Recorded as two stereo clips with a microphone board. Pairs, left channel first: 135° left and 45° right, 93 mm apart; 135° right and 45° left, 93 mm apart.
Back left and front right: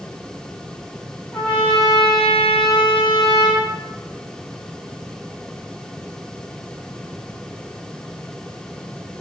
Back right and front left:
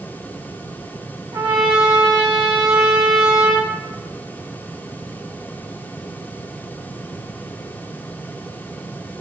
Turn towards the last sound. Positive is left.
turn(degrees=55)